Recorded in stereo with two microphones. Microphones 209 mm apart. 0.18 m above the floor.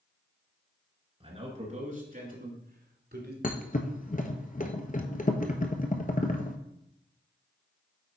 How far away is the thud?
About 0.9 m.